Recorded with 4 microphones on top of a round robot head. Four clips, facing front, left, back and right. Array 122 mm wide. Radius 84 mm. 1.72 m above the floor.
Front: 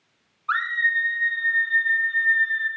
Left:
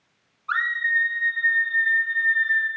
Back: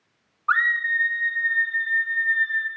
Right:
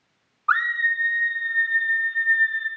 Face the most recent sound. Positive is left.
turn(degrees=100)